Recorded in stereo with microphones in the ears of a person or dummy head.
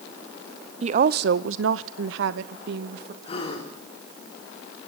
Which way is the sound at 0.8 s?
35° right (ahead or behind).